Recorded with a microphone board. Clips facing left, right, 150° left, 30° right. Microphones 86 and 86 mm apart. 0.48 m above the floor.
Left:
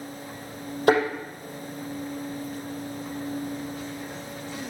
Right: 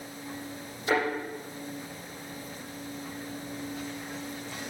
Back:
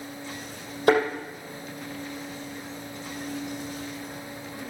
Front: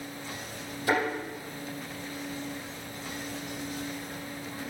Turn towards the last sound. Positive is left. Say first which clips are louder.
# left 7 dB, back 7 dB
turn(degrees=115)